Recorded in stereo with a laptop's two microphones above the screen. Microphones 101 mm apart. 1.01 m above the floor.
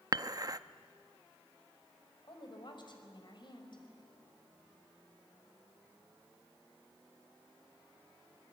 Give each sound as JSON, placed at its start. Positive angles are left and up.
{"t": 0.1, "sound": "dishes clattering", "side_deg": -40, "distance_m": 0.7}
{"t": 2.2, "sound": "a woman speaking", "side_deg": 50, "distance_m": 5.0}